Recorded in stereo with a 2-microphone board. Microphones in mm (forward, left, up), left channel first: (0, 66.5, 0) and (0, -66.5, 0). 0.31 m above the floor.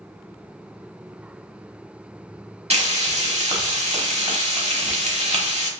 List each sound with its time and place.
2.7 s frying: 55° right (ahead or behind), 1.0 m